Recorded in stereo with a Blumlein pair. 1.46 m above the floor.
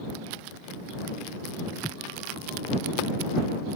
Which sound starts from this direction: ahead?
Footsteps, at 1.7 s.